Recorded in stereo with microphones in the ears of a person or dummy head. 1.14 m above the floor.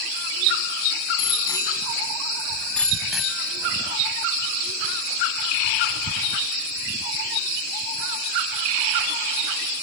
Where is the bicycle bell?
30° left (ahead or behind); by 4.0 s 10° right (ahead or behind).